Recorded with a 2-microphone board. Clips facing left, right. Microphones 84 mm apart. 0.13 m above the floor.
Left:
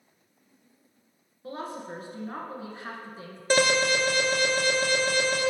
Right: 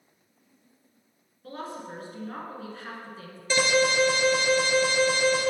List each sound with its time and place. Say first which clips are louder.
1.4 s a woman speaking: left 1 dB; 20° left (ahead or behind), 1.2 m
3.5 s an alarm: even; 55° left (ahead or behind), 1.3 m